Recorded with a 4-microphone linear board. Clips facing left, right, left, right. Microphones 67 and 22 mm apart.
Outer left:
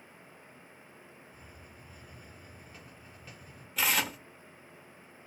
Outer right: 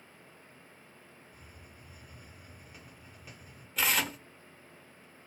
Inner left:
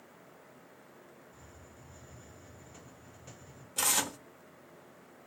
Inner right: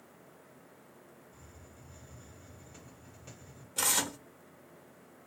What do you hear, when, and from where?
1.3 s a hiss: 10° right (ahead or behind), 1.7 m
3.8 s tearing paper: centre (ahead or behind), 0.6 m